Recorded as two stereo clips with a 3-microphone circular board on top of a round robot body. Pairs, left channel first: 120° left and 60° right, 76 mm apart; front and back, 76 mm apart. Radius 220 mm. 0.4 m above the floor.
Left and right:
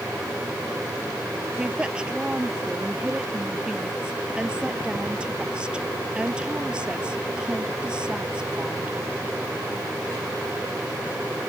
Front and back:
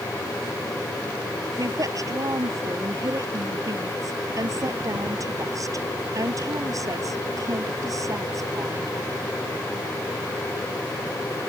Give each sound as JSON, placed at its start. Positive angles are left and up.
{"t": 1.6, "sound": "a woman speaking", "azimuth_deg": -140}